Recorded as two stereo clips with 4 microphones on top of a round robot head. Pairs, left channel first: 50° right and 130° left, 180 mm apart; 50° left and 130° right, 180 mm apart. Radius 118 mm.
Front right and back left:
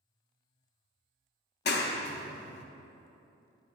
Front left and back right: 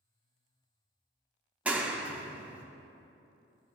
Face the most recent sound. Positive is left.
turn(degrees=-50)